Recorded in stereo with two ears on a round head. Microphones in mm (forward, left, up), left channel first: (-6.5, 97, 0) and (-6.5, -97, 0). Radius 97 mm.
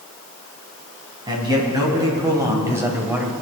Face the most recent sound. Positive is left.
turn(degrees=-10)  # may be behind; listen again after turning